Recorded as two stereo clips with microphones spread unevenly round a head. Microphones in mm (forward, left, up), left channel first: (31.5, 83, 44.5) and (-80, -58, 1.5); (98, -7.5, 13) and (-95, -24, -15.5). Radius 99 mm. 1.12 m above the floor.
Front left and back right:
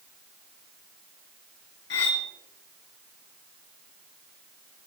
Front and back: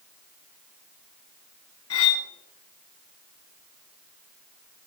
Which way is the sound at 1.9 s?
20° left.